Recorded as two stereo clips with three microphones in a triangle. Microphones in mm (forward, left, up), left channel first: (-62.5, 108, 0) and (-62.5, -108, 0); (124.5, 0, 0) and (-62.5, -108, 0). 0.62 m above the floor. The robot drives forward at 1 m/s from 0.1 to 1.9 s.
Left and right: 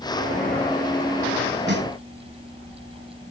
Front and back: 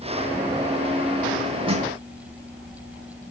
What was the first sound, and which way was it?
A snare drum, 90° right.